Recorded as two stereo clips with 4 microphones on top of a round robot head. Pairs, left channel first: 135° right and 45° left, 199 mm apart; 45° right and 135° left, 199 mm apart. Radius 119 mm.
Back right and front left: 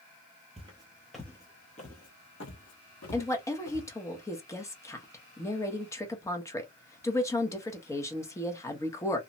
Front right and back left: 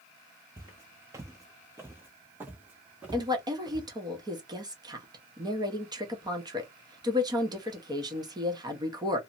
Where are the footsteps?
70° left, 0.7 m; by 3.9 s 140° right, 1.5 m.